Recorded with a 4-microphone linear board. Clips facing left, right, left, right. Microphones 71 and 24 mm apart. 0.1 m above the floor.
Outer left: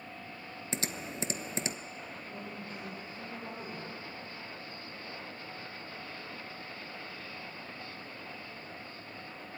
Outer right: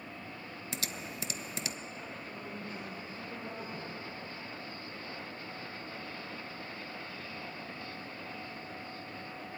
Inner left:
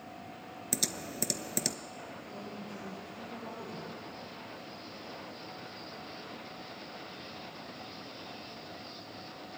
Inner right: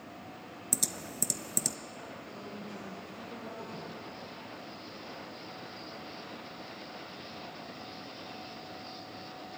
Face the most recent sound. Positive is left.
turn(degrees=-5)  # may be behind; listen again after turning